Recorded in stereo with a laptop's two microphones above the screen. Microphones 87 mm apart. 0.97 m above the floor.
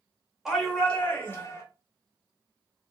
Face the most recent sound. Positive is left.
turn(degrees=35)  # may be behind; listen again after turning